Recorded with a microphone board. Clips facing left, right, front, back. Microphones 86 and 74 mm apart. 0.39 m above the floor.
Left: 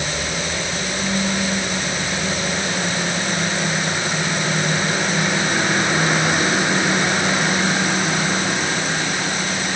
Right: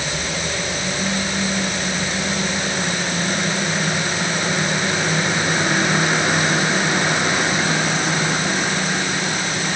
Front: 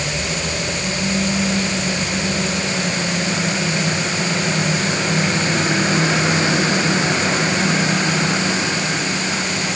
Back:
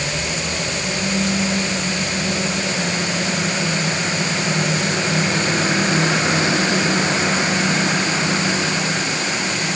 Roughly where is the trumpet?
I don't hear a trumpet.